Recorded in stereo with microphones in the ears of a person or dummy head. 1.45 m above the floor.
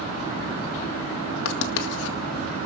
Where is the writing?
75° left (ahead or behind), 1.8 m.